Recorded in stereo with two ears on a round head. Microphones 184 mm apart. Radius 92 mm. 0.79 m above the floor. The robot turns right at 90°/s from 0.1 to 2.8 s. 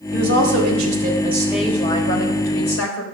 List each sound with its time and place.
0.1 s a woman speaking: 135° right, 3.5 m; by 3.0 s 105° left, 3.5 m